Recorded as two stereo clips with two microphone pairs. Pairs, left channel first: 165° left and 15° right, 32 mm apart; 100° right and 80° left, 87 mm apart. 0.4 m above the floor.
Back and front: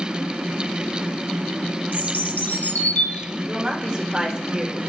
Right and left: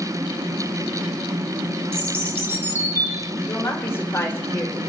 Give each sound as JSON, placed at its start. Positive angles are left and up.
{"t": 1.9, "sound": "a bird", "azimuth_deg": 140, "distance_m": 0.9}
{"t": 3.5, "sound": "a woman speaking", "azimuth_deg": -55, "distance_m": 1.4}